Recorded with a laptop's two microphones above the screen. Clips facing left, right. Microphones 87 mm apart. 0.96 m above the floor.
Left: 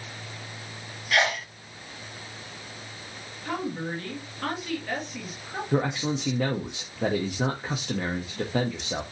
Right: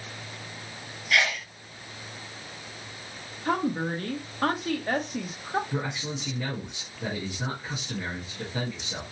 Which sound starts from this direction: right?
A woman speaking, at 3.5 s.